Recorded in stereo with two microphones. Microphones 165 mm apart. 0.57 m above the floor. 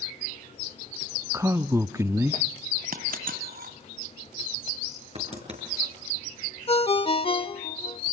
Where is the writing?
40° right (ahead or behind), 6 m.